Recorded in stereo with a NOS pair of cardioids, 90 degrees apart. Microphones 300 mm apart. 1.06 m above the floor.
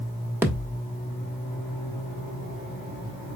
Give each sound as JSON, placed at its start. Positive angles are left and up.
{"t": 0.4, "sound": "a thud", "azimuth_deg": -10, "distance_m": 1.0}